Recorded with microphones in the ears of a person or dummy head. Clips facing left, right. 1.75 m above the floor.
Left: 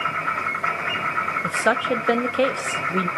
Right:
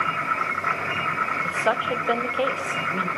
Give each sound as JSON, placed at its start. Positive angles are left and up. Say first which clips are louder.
{"t": 1.4, "sound": "a woman speaking", "louder": "left 3 dB", "side_deg": 30, "distance_m": 1.0}